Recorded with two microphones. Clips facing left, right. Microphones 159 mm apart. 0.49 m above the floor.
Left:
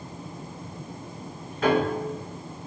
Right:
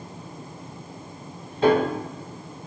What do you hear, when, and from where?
1.6 s a piano: 30° right (ahead or behind), 1.4 m